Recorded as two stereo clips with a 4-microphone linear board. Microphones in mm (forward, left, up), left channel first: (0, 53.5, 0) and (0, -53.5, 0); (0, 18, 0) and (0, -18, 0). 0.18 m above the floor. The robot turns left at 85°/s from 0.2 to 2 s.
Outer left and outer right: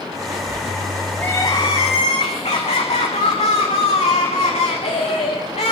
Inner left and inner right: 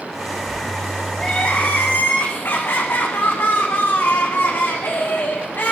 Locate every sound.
1.2 s crying: 165° left, 8.5 m; by 5.7 s 95° left, 8.5 m